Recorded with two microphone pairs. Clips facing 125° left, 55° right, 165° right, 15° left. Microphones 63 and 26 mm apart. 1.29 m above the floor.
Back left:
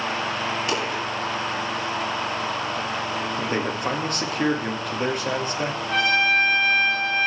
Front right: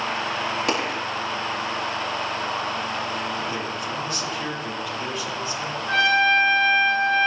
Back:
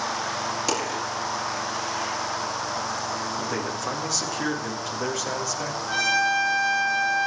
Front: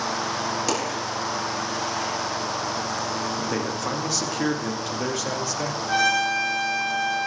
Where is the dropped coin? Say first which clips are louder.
Front right 1 dB, front 1 dB; 75° right, 5 m.